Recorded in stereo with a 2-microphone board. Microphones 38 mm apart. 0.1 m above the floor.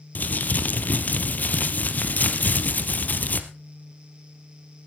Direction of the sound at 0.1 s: 45° left (ahead or behind).